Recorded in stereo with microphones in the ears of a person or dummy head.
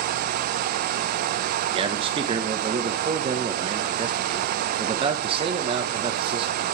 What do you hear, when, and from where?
1.7 s a man speaking: 30° right (ahead or behind), 1.2 m